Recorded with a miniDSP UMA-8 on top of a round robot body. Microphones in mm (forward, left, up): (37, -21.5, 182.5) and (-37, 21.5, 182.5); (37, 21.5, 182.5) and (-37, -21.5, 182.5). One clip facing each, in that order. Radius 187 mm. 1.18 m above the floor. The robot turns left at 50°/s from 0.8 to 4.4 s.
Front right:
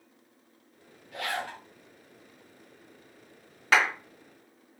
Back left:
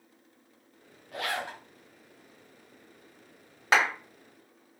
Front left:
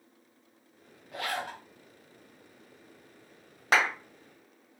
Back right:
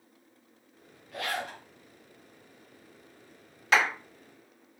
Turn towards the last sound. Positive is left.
turn(degrees=45)